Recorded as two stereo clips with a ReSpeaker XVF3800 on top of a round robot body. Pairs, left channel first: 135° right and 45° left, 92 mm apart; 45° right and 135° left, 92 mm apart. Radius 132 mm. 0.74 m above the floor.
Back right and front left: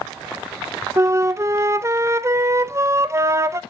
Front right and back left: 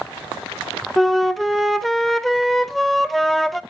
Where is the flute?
45° left, 0.8 m.